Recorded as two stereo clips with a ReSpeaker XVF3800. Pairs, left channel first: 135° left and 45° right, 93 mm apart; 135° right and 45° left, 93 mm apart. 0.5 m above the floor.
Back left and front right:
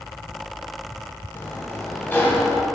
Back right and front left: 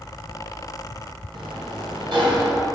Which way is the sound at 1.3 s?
70° left.